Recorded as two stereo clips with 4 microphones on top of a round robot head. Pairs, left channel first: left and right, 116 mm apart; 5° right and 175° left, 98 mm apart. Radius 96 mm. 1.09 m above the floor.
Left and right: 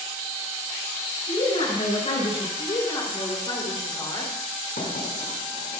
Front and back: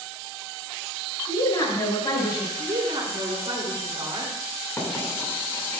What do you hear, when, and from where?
1.3 s a woman speaking: 40° left, 5 m
2.6 s a woman speaking: 140° left, 3 m
4.8 s writing: 60° left, 4.5 m